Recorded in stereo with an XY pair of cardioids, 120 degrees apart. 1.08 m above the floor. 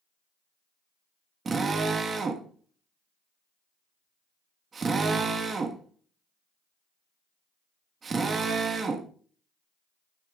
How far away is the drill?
About 1.4 m.